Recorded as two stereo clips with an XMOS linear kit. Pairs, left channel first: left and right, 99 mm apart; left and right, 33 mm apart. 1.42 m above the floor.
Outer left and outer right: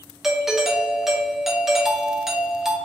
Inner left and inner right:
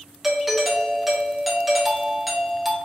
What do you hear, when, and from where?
0.2 s a doorbell: 5° right (ahead or behind), 0.5 m